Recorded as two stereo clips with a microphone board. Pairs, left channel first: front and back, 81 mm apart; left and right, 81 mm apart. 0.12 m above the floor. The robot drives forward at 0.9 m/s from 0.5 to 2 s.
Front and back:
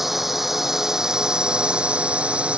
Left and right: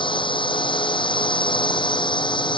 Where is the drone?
95° left; by 2.6 s 105° left.